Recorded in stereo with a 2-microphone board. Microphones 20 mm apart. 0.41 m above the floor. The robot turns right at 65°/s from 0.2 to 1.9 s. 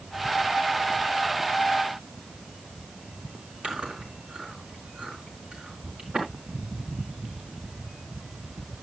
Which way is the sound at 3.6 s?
60° right (ahead or behind).